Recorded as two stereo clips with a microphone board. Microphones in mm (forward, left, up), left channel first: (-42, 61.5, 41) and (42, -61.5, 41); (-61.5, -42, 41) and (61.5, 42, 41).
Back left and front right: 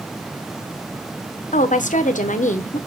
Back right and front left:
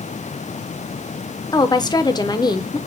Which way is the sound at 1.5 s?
155° left.